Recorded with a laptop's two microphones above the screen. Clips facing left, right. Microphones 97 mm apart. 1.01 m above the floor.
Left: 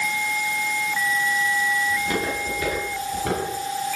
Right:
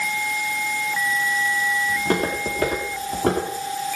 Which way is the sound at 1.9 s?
75° right (ahead or behind).